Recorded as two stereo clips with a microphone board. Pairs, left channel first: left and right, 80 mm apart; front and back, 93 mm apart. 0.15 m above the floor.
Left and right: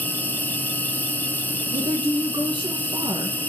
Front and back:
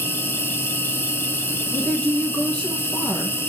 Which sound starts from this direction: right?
A woman speaking, at 1.7 s.